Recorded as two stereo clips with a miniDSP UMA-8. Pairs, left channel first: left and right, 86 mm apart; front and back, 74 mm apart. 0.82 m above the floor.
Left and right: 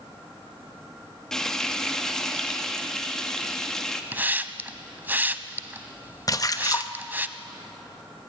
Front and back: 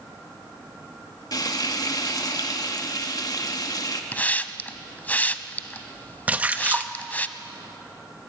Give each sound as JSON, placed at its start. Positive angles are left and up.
{"t": 1.3, "sound": "frying", "azimuth_deg": 10, "distance_m": 1.5}
{"t": 4.1, "sound": "a hiss", "azimuth_deg": -45, "distance_m": 0.7}
{"t": 6.3, "sound": "a splash", "azimuth_deg": 115, "distance_m": 0.9}